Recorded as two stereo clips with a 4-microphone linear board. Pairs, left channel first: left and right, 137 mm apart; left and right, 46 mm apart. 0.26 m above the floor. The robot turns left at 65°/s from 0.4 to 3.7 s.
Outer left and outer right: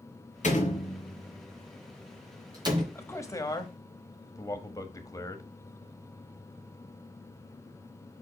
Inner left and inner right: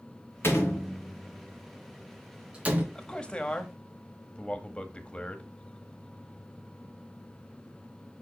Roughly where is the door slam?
Left.